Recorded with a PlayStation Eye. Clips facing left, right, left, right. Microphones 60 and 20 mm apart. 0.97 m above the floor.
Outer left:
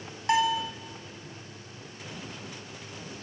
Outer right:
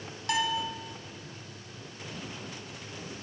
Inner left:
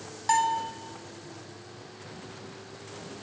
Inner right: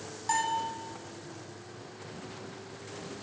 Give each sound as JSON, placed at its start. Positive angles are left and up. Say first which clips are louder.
{"t": 0.3, "sound": "a bell", "louder": "outer left 5 dB, inner left 5 dB", "side_deg": 30, "distance_m": 1.0}